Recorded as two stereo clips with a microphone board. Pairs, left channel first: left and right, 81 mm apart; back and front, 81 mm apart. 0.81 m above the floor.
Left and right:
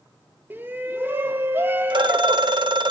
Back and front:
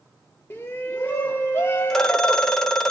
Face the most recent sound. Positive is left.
turn(degrees=-100)